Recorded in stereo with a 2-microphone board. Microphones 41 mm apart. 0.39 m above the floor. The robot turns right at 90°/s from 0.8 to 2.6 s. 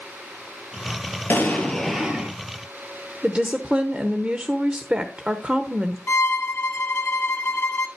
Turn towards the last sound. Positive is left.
turn(degrees=65)  # may be behind; listen again after turning